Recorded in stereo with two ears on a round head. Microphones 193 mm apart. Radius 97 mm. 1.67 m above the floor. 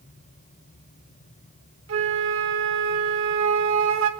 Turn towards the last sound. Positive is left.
turn(degrees=-70)  # may be behind; listen again after turning